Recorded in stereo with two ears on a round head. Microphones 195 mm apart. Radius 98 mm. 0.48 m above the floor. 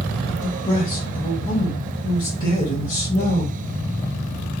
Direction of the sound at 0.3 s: 20° left (ahead or behind).